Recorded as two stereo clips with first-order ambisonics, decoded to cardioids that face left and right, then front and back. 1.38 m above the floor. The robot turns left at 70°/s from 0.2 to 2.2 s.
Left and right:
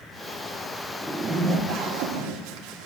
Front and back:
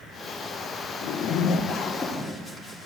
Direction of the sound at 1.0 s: 10° right.